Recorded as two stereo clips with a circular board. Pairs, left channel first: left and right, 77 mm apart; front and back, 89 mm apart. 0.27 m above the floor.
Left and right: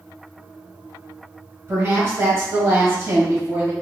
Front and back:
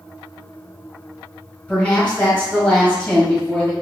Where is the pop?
I don't hear a pop.